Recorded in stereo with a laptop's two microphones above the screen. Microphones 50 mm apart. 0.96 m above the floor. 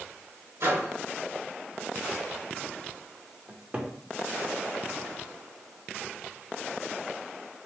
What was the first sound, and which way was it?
A microwave, 70° right (ahead or behind).